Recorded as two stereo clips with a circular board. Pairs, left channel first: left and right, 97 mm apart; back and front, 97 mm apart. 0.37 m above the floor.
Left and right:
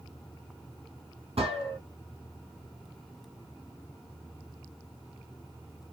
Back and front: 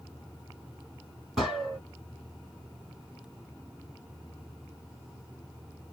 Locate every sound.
1.4 s a gunshot: 85° right, 2 m